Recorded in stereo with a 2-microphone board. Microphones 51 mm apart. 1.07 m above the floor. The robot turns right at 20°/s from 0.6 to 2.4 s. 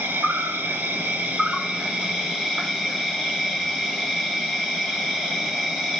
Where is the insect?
50° right, 1.7 m; by 6.0 s 15° right, 1.7 m.